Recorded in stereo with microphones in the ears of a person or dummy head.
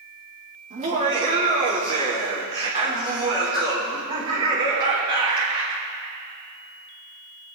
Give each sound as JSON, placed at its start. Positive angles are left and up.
{"t": 0.7, "sound": "laughter", "side_deg": -35, "distance_m": 3.0}